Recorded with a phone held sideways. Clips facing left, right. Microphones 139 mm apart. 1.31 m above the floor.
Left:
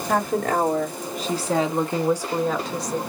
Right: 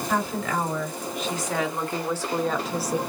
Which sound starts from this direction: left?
A woman speaking, at 0.1 s.